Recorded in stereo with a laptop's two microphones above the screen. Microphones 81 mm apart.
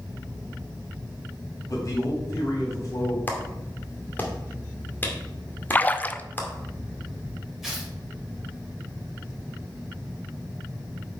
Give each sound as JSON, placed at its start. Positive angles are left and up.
{"t": 1.7, "sound": "a man speaking", "side_deg": 45, "distance_m": 3.0}
{"t": 3.3, "sound": "a clap", "side_deg": 25, "distance_m": 1.9}
{"t": 5.7, "sound": "a splash", "side_deg": 20, "distance_m": 0.5}
{"t": 7.6, "sound": "tearing paper", "side_deg": -5, "distance_m": 3.5}